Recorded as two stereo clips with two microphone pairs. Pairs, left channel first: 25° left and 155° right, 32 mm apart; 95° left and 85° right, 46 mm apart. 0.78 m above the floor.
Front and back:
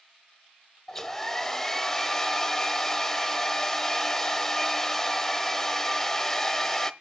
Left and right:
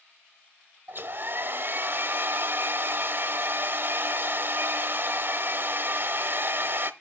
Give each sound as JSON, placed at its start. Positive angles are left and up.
{"t": 0.9, "sound": "a hair dryer", "azimuth_deg": -55, "distance_m": 0.6}